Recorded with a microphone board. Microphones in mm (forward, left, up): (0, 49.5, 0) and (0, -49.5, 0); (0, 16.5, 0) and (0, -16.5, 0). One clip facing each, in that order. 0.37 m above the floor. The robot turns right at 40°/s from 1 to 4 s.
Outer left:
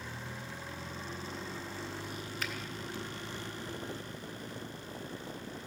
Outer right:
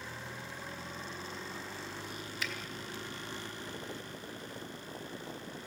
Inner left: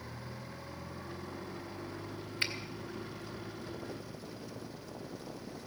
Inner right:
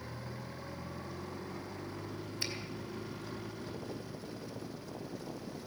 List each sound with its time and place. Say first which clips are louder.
2.4 s a finger snap: even, inner left 5 dB; 55° left (ahead or behind), 2 m